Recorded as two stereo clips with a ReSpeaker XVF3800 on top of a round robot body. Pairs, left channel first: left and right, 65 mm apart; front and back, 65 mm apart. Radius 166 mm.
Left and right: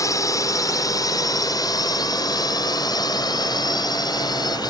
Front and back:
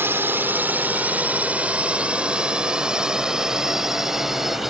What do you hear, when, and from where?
0.0 s a drone: 120° left; by 4.7 s 95° left